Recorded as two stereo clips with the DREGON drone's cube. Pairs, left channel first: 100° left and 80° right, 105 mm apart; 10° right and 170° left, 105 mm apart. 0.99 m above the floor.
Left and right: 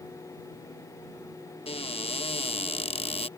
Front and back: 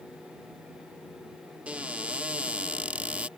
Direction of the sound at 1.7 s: 95° left.